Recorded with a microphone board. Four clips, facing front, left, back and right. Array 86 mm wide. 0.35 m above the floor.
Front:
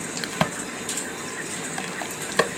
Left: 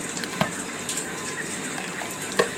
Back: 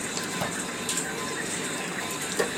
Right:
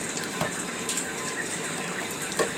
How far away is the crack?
About 0.6 m.